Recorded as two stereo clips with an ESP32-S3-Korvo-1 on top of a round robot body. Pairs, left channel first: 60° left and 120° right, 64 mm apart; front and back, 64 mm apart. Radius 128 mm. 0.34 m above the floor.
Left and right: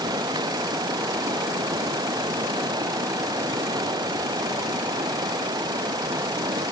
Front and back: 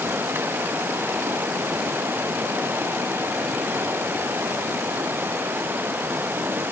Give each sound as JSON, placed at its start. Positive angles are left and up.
{"t": 0.0, "sound": "running water", "azimuth_deg": -120}